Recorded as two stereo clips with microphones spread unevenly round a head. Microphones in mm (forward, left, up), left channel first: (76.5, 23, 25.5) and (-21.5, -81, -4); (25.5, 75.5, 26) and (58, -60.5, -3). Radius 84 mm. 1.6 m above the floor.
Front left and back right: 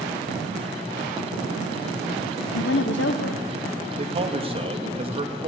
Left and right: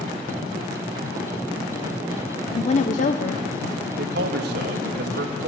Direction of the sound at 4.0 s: 85° right.